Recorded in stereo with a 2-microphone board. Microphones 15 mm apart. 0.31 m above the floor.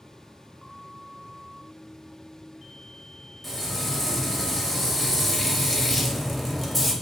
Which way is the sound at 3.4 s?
5° left (ahead or behind).